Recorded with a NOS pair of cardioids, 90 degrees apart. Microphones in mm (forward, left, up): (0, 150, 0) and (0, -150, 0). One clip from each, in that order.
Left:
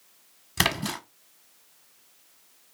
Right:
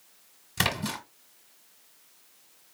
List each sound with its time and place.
0.6 s a splash: 20° left, 1.3 m